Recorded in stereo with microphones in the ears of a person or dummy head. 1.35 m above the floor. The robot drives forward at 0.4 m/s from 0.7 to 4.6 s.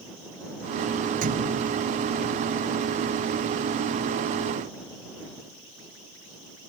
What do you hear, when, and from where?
1.2 s a thud: 40° right (ahead or behind)